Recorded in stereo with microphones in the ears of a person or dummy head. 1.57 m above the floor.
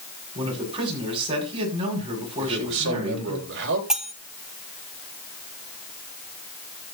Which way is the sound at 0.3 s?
30° right (ahead or behind).